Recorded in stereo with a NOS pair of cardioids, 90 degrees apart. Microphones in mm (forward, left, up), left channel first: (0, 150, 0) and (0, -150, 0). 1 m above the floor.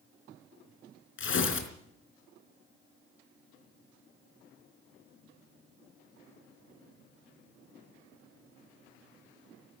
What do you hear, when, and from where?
1.2 s tearing paper: 45° left, 4 m